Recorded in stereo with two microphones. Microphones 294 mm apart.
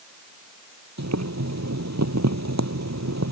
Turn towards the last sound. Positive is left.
turn(degrees=-65)  # may be behind; listen again after turning